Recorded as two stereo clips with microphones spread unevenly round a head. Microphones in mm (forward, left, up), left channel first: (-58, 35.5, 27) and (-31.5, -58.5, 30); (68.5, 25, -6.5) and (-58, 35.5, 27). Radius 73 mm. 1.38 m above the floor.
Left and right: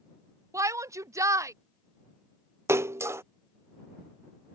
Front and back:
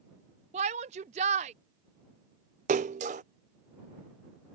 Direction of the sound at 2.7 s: 140° right.